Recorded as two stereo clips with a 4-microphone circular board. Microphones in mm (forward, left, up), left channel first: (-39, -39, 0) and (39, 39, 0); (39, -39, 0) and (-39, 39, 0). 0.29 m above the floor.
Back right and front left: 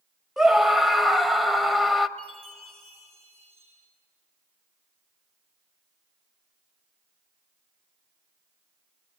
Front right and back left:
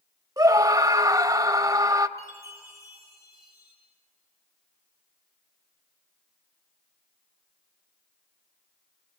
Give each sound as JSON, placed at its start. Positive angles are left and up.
{"t": 0.4, "sound": "a scream", "azimuth_deg": 135, "distance_m": 1.0}
{"t": 2.2, "sound": "a chime", "azimuth_deg": 15, "distance_m": 9.0}